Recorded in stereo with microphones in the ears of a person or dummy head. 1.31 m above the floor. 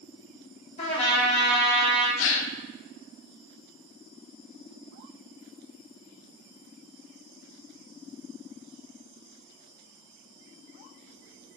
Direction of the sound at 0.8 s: 35° left (ahead or behind).